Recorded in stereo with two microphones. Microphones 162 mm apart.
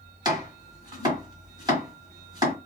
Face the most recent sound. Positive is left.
turn(degrees=-30)  # may be behind; listen again after turning